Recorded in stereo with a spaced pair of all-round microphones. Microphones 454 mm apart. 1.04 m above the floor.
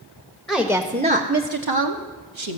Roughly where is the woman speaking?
Centre.